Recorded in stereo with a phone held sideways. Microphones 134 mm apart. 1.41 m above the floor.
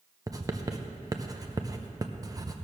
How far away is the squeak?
No squeak in this recording.